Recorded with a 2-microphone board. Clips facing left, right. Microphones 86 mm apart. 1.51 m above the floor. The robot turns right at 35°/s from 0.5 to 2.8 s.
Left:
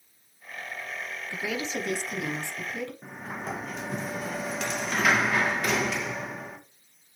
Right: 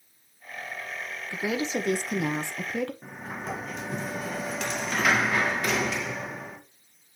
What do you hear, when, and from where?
1.3 s a woman speaking: 160° right, 0.9 m; by 2.9 s 105° right, 0.9 m
3.0 s a sliding door: 5° left (ahead or behind), 1.1 m